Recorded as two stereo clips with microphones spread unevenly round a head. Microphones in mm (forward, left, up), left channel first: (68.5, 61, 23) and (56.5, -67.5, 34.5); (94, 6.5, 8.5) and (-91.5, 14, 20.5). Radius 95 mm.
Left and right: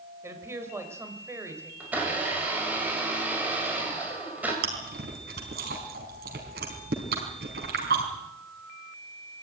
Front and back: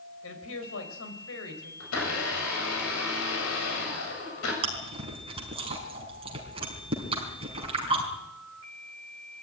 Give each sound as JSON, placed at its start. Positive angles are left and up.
{"t": 0.2, "sound": "a woman speaking", "azimuth_deg": -25, "distance_m": 4.5}
{"t": 1.8, "sound": "a blender", "azimuth_deg": -15, "distance_m": 7.0}
{"t": 4.6, "sound": "chewing", "azimuth_deg": -120, "distance_m": 4.5}